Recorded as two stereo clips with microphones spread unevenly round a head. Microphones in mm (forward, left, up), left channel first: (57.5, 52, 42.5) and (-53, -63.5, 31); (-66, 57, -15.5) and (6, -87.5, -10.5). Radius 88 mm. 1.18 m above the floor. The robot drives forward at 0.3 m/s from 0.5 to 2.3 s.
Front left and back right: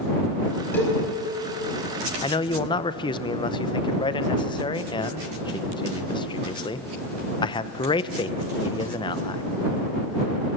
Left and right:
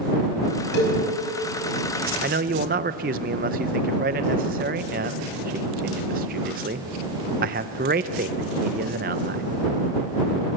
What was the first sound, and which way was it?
A cowbell, 125° left.